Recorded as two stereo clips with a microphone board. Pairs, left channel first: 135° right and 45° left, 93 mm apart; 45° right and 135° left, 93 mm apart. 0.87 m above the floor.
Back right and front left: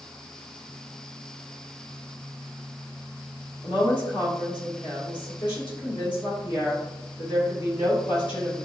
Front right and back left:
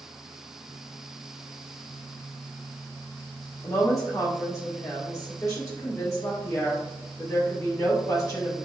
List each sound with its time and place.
3.6 s a woman speaking: 100° right, 1.9 m